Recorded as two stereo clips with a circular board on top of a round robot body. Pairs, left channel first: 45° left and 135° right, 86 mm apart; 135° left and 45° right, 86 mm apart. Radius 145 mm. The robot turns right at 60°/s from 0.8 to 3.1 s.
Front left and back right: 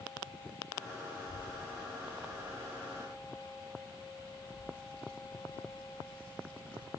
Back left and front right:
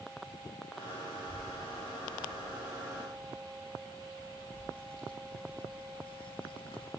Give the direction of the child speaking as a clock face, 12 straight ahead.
12 o'clock.